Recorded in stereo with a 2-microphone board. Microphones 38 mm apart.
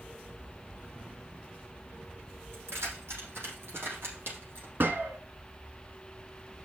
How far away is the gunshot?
About 1.5 m.